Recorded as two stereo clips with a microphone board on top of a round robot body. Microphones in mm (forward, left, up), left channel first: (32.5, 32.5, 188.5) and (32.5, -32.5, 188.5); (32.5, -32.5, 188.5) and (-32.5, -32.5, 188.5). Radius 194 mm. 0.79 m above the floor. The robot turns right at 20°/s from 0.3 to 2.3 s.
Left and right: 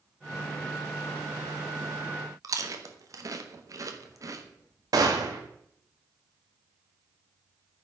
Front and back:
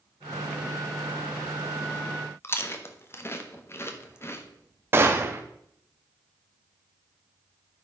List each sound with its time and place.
2.4 s chewing: 55° right, 1.2 m
4.9 s a gunshot: 125° right, 0.8 m